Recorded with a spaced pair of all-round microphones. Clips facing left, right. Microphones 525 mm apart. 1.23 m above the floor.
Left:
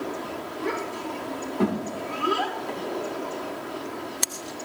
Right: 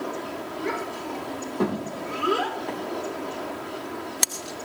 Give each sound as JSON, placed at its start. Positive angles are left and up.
{"t": 0.6, "sound": "a child speaking", "side_deg": -5, "distance_m": 3.5}
{"t": 2.7, "sound": "a microwave", "side_deg": -75, "distance_m": 2.0}